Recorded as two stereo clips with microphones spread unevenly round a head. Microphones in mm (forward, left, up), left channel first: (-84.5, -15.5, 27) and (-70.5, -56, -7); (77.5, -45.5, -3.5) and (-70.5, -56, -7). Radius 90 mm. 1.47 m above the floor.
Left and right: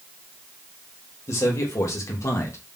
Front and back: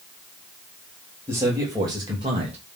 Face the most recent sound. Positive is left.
turn(degrees=125)